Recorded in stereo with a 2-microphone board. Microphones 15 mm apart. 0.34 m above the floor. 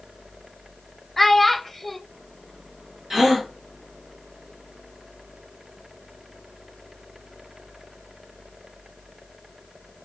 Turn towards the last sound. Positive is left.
turn(degrees=-15)  # may be behind; listen again after turning